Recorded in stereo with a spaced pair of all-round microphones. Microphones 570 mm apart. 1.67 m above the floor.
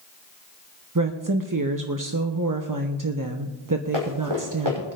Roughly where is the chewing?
No chewing in this recording.